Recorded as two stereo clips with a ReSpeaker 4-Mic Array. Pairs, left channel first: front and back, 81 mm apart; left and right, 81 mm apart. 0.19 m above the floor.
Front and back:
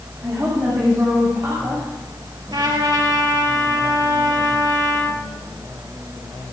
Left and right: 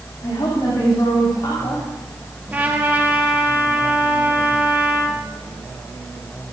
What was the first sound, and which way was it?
A woman speaking, 120° left.